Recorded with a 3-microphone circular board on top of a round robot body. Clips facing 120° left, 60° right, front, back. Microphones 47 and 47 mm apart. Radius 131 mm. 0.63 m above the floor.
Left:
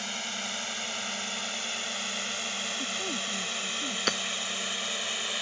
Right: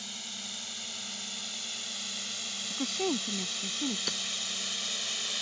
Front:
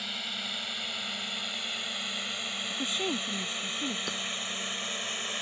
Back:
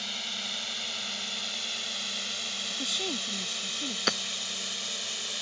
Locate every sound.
0.0 s a drone: 80° left; by 5.4 s 55° left
2.7 s a woman speaking: 70° right
4.1 s hammering: 160° left